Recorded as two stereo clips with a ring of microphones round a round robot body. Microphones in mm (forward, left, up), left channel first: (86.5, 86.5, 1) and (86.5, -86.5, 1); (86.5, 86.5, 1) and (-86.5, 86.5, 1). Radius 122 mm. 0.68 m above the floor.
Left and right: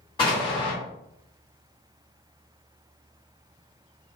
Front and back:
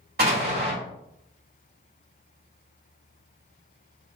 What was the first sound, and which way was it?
An explosion, 165° left.